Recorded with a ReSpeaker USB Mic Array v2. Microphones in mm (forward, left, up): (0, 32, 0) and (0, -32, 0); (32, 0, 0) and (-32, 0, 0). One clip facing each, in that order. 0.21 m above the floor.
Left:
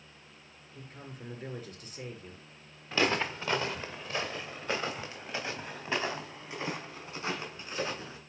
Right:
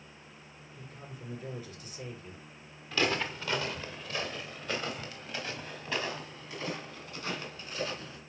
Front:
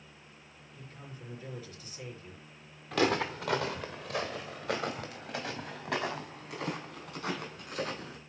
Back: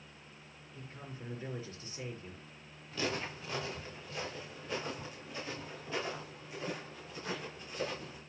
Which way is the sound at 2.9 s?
20° left.